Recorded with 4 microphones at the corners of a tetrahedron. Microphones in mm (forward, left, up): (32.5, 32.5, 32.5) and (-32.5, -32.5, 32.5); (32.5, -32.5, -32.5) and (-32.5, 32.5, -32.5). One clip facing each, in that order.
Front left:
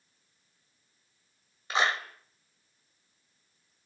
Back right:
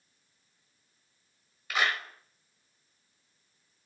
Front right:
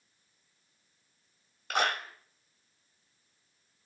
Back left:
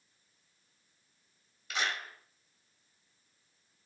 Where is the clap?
15° right, 2 m.